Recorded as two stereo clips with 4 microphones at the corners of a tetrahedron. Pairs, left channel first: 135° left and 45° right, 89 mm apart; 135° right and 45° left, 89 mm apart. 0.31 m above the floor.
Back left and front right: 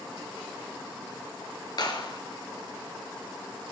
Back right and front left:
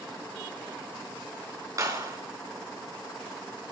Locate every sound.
1.8 s a clap: 95° left, 4.5 m